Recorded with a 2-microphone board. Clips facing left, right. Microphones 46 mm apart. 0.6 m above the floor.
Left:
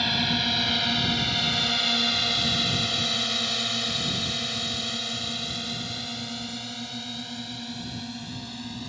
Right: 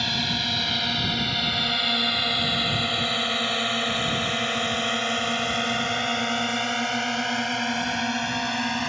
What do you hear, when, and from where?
0.0 s a drone: 5° left (ahead or behind); by 8.9 s 80° right